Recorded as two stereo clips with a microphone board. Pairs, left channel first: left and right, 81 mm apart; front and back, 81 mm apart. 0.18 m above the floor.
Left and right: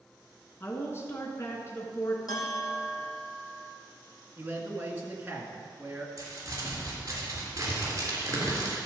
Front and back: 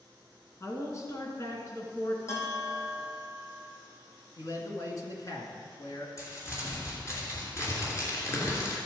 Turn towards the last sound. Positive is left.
turn(degrees=-45)